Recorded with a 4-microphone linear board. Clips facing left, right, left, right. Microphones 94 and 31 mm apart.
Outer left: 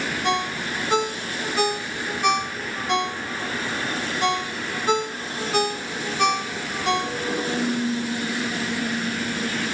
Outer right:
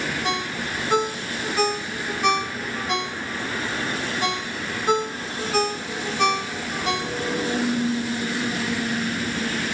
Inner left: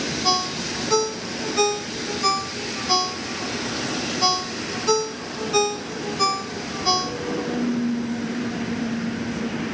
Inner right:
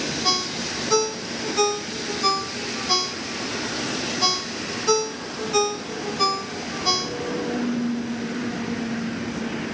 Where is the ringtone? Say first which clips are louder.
Outer left 2 dB, inner left 3 dB; 5° left (ahead or behind), 1.5 m.